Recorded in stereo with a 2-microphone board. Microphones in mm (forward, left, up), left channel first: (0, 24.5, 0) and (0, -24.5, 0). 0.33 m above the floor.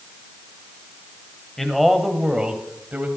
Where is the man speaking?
5° left (ahead or behind), 1.8 m; by 3.1 s 35° right (ahead or behind), 1.9 m.